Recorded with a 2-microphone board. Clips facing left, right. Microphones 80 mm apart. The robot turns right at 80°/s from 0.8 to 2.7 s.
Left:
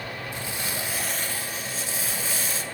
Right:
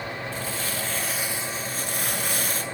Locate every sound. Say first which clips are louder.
0.3 s crumpling: right 2 dB; 160° left, 1.4 m; by 2.6 s 50° right, 1.4 m